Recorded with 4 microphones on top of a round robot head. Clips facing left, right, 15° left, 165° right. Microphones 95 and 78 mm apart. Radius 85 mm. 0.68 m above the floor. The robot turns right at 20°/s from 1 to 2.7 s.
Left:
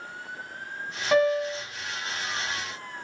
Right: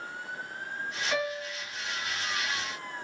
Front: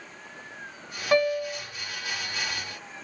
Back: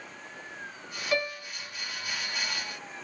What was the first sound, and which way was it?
A piano, 55° left.